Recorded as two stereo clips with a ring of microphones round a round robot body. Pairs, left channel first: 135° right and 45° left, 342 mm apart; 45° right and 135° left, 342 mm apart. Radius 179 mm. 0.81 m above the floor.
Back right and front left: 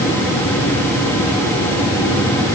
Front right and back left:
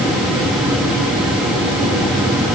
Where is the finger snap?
No finger snap in this recording.